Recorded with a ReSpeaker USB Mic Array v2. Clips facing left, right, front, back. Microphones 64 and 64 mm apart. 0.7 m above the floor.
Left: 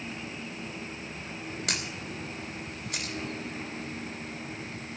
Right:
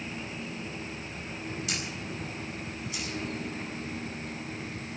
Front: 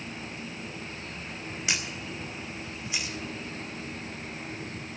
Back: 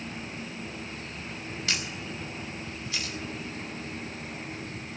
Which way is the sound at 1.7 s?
70° left.